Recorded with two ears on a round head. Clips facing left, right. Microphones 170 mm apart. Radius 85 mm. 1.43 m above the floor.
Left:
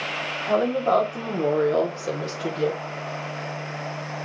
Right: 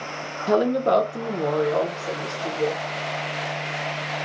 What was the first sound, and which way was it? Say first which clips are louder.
A woman speaking: right 2 dB; 50° right (ahead or behind).